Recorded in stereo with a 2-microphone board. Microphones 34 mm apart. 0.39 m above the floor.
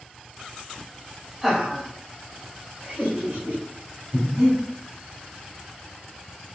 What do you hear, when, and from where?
1.4 s laughter: 10° right (ahead or behind), 1.8 m; by 3.6 s 60° right (ahead or behind), 2.5 m
4.1 s breathing: 30° right (ahead or behind), 1.8 m